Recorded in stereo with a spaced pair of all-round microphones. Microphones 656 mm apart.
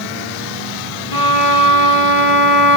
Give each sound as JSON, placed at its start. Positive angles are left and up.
{"t": 1.1, "sound": "a violin", "side_deg": 70, "distance_m": 2.5}